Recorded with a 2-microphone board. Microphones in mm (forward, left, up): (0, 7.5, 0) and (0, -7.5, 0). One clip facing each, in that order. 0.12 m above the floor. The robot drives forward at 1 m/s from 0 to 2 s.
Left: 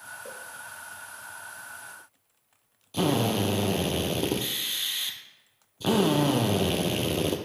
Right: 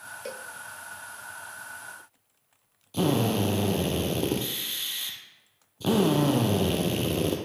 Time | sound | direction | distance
0.2 | a cowbell | 60° right (ahead or behind) | 0.6 m
2.9 | a drill | 15° left (ahead or behind) | 1.3 m